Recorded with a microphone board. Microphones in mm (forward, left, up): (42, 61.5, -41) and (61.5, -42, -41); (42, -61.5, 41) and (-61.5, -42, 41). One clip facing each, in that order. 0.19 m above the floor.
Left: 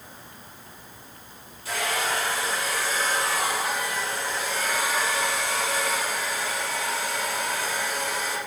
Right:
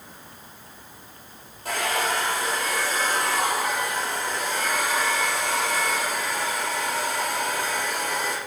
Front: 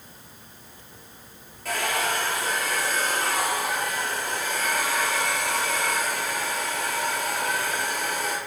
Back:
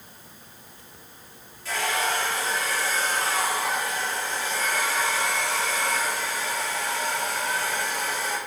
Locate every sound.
1.6 s a hair dryer: 40° right, 4 m